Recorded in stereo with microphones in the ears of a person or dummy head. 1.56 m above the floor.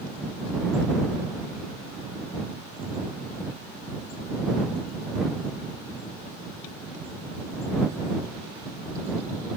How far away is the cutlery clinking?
No cutlery clinking in this recording.